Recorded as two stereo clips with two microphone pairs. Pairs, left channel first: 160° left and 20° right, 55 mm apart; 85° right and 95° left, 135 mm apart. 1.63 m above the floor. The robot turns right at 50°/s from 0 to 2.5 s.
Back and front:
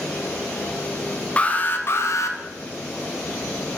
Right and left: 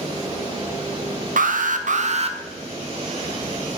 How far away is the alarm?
About 0.6 m.